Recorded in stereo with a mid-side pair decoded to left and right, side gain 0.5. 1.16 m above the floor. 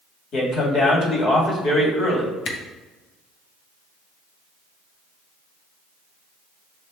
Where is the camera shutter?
65° left, 0.8 m.